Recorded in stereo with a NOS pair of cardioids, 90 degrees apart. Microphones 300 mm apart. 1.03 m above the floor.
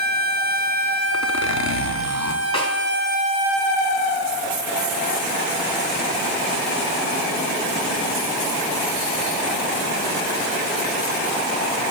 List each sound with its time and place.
1.1 s a zipper: 65° left, 1.0 m
2.5 s a snare drum: 20° left, 3.5 m